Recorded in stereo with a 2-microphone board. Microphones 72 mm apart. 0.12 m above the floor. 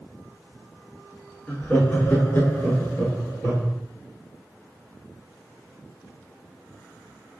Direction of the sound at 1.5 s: 25° left (ahead or behind).